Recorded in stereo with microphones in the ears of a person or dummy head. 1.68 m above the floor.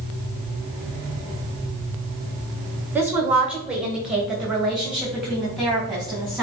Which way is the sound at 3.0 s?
10° right (ahead or behind).